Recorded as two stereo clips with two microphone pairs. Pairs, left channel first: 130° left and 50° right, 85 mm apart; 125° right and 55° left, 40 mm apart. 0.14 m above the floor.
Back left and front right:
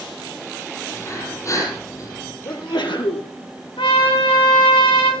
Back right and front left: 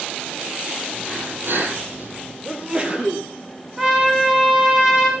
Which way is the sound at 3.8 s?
130° left.